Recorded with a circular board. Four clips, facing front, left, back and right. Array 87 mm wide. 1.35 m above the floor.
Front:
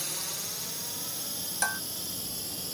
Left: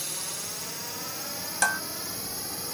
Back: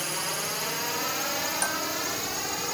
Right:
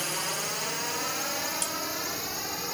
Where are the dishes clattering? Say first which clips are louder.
Left 9 dB, front 2 dB; 85° left.